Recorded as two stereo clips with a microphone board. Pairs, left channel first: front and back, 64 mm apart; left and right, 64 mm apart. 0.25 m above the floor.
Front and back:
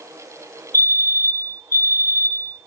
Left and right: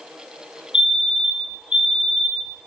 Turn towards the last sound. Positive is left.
turn(degrees=-25)